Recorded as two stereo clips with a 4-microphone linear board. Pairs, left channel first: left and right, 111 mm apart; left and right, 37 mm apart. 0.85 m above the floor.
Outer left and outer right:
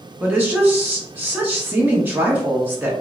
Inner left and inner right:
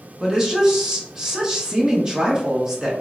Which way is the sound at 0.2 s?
15° right (ahead or behind).